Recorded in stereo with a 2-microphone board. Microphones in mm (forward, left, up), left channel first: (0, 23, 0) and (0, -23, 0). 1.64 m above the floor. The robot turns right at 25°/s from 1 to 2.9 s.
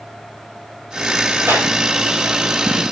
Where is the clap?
55° right (ahead or behind), 5.5 m; by 1.7 s 50° right (ahead or behind), 5.5 m.